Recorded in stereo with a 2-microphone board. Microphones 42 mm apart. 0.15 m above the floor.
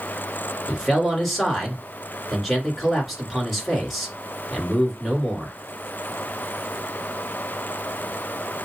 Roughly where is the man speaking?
Centre.